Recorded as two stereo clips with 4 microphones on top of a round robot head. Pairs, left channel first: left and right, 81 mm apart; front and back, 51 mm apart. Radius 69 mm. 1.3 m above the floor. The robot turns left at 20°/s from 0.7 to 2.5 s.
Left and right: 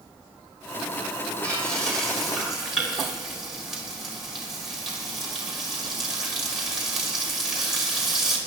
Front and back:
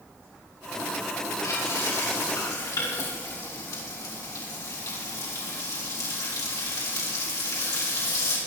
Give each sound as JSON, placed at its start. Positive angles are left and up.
{"t": 1.4, "sound": "frying", "azimuth_deg": 15, "distance_m": 5.0}